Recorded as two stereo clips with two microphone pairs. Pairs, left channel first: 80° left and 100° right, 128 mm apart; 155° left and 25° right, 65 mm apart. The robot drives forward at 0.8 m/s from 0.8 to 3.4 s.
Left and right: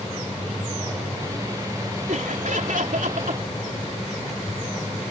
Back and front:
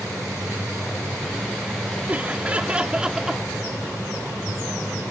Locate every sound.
2.1 s laughter: 90° right; by 3.5 s 105° right